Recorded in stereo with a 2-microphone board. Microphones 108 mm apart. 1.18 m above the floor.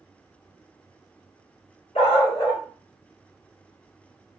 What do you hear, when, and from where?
1.9 s a dog barking: 60° left (ahead or behind), 1.3 m